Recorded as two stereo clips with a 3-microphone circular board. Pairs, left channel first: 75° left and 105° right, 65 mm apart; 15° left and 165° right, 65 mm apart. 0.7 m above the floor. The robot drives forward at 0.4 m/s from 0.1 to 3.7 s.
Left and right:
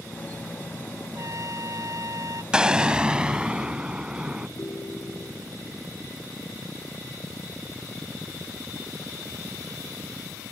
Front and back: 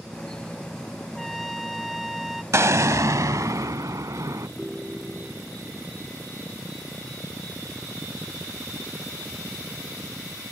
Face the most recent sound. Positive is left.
turn(degrees=110)